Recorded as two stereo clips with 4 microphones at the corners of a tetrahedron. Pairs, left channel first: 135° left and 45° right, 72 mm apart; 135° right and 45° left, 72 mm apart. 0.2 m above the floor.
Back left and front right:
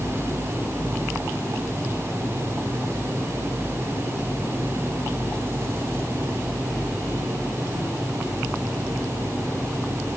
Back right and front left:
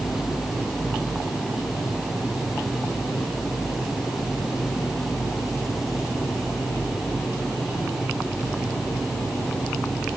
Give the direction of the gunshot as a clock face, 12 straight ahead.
No gunshot in this recording.